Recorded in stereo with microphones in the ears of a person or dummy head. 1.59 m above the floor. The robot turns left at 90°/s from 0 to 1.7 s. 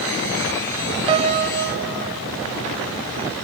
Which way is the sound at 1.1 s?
30° right.